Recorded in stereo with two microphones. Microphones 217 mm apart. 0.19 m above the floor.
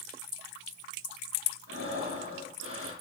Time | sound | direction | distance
1.7 | breathing | 70° right (ahead or behind) | 5.5 m